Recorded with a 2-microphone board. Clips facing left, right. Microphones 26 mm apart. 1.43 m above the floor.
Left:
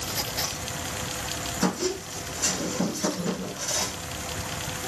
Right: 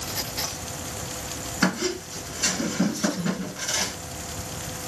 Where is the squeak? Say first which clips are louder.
Right 3 dB; 40° right (ahead or behind), 1.9 m.